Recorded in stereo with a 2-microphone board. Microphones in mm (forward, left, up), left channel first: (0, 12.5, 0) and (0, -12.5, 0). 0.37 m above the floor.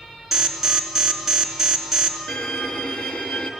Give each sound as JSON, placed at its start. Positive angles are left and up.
{"t": 0.3, "sound": "an alarm", "side_deg": -5, "distance_m": 3.5}
{"t": 2.3, "sound": "a violin", "side_deg": 60, "distance_m": 3.5}